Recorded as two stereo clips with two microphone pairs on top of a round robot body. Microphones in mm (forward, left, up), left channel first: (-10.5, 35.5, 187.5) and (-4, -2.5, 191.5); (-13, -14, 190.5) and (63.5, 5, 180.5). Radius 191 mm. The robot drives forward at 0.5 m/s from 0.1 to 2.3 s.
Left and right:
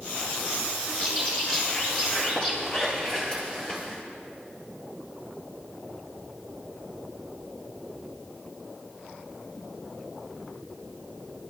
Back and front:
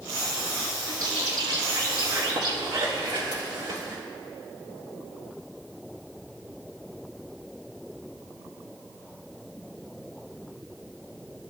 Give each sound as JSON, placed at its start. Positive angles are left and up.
{"t": 0.9, "sound": "a bird", "azimuth_deg": 35, "distance_m": 5.0}